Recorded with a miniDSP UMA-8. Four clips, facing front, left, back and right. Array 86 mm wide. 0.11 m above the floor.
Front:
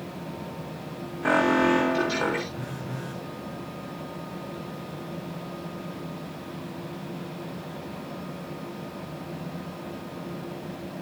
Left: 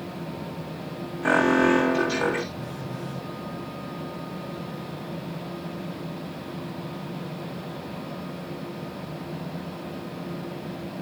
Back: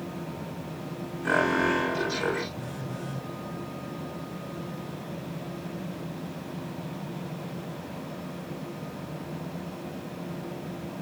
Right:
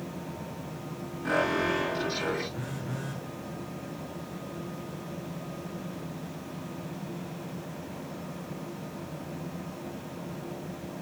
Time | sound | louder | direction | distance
1.2 | an alarm | left 8 dB, front 3 dB | 50° left | 9 m
2.5 | a phone buzzing | left 2 dB, front 1 dB | 55° right | 5.5 m